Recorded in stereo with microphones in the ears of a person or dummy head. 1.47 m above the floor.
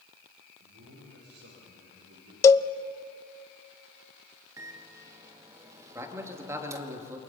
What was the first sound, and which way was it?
A man speaking, 90° right.